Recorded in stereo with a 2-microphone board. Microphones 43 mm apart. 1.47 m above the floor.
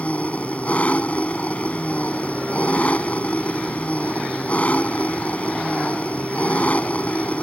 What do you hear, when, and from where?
0.0 s an engine running: 35° left (ahead or behind)